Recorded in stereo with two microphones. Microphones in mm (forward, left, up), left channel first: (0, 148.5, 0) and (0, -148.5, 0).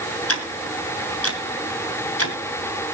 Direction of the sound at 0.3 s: 50° left (ahead or behind).